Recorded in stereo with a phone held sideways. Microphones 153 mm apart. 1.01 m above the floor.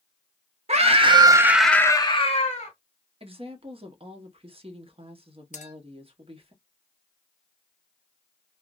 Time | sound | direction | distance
0.7 | a scream | 45° right (ahead or behind) | 0.8 m
3.2 | a woman speaking | 40° right (ahead or behind) | 0.9 m
5.5 | a clink | 50° left (ahead or behind) | 0.8 m